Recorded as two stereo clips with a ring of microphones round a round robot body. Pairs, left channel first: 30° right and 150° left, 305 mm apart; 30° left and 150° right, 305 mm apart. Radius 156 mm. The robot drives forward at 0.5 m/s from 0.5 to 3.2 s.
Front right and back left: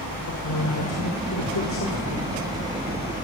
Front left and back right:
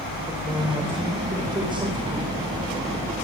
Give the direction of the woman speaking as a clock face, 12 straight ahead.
2 o'clock.